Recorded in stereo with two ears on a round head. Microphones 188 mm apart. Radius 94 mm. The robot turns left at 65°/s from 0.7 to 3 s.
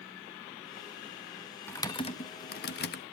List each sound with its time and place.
1.7 s typing on a keyboard: 10° left (ahead or behind), 0.6 m; by 3.0 s 50° left (ahead or behind), 0.6 m